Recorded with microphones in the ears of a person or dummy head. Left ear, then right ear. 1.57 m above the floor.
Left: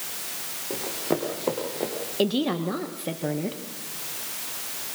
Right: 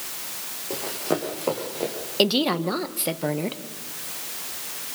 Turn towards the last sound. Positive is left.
turn(degrees=-30)  # may be behind; listen again after turning